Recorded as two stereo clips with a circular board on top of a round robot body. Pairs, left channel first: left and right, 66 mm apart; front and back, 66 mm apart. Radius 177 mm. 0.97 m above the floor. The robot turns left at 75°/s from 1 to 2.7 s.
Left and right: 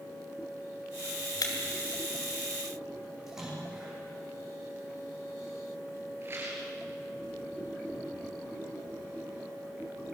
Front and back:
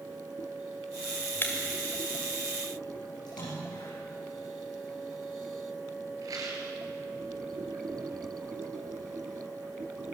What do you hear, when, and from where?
1.4 s breaking glass: 60° left, 1.6 m; by 1.5 s 50° left, 1.6 m
3.3 s a splash: 5° right, 8.5 m
6.2 s a rattle: 145° right, 4 m